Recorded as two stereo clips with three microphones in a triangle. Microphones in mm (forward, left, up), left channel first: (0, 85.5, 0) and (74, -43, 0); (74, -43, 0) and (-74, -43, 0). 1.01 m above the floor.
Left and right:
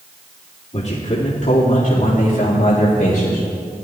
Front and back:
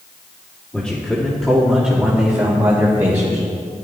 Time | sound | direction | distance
0.7 | a man speaking | 85° left | 2.5 m